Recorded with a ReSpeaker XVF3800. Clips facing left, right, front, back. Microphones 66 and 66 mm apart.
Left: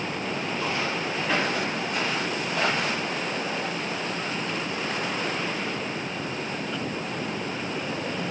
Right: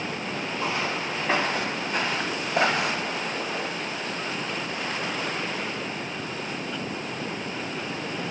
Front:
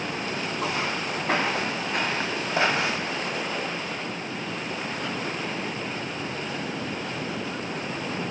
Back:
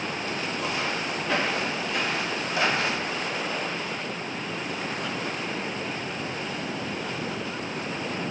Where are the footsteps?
25° right, 1.5 m; by 3.2 s 85° right, 0.9 m.